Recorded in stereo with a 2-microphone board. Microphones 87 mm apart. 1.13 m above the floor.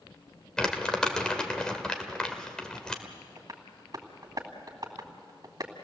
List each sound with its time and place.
0.6 s crumpling: 10° left (ahead or behind), 1.8 m
3.0 s tapping: 45° right (ahead or behind), 2.5 m